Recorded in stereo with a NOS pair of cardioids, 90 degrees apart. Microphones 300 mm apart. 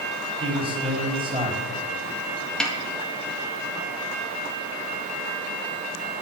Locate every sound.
0.4 s a man speaking: 15° right, 4 m
2.6 s a snare drum: straight ahead, 2 m